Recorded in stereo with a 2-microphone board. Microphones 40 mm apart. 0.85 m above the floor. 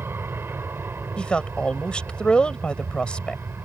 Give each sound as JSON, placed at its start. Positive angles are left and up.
{"t": 0.0, "sound": "an aircraft", "side_deg": -65}
{"t": 1.2, "sound": "a woman speaking", "side_deg": 25}